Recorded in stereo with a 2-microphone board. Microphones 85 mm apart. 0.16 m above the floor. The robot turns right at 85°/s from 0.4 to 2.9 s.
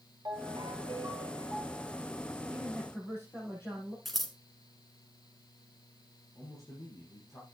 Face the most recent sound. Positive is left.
turn(degrees=40)  # may be behind; listen again after turning